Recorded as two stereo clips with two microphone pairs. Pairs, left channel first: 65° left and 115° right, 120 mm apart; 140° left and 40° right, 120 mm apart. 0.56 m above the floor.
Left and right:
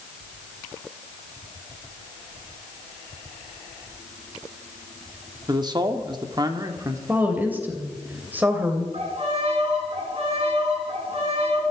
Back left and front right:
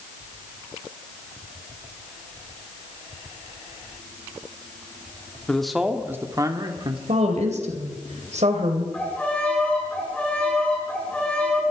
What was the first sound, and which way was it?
A man speaking, 140° right.